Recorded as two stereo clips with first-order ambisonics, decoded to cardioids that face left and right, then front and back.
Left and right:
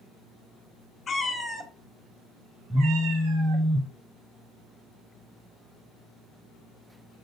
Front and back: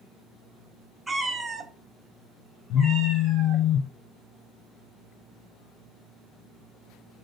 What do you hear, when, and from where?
1.1 s a cat meowing: 115° left, 0.9 m; by 3.6 s 105° right, 2.5 m
2.7 s a phone buzzing: 5° right, 0.6 m